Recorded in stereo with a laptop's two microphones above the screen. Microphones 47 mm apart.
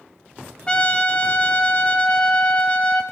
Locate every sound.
0.7 s a trumpet: 25° left (ahead or behind), 0.8 m